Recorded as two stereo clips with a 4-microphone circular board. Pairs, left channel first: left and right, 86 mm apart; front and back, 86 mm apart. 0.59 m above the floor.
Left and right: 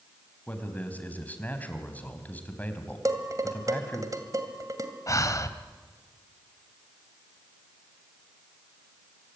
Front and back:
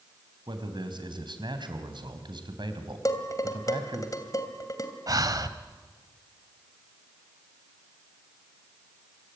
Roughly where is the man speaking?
Behind.